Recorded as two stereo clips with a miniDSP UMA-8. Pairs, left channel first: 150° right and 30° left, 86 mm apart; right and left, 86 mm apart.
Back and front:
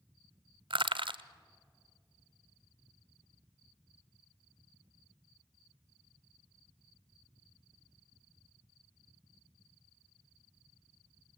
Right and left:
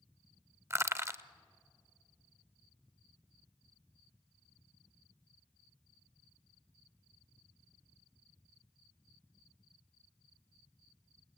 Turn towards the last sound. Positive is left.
turn(degrees=35)